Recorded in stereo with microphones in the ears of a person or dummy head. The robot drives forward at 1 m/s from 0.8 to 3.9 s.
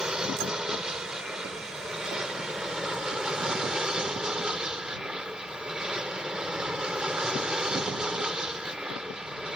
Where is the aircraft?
5° right (ahead or behind).